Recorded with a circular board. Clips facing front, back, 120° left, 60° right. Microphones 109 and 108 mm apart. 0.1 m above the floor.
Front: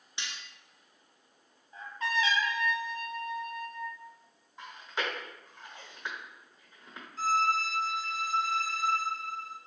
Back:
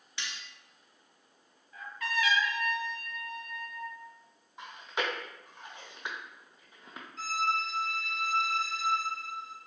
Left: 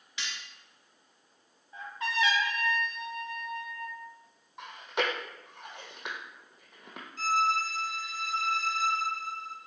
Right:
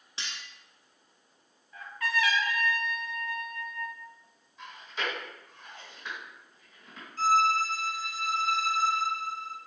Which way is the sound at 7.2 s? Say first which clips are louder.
Front 4 dB, right 4 dB; 85° right.